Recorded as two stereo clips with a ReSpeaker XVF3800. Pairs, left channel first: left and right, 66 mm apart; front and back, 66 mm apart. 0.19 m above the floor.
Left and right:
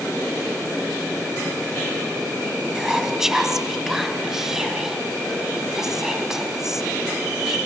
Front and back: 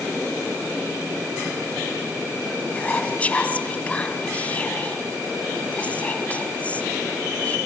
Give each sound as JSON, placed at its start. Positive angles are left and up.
{"t": 2.8, "sound": "whispering", "azimuth_deg": -20, "distance_m": 1.0}